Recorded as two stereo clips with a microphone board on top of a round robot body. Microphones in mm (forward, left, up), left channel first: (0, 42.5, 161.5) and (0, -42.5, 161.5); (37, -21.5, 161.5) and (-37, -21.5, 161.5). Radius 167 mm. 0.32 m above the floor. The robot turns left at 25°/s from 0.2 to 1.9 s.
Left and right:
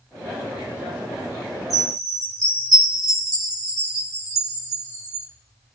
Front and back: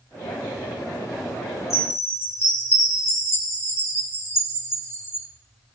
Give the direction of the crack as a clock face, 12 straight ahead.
No crack in this recording.